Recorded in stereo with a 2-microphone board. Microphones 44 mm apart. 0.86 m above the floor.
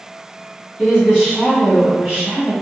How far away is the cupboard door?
No cupboard door in this recording.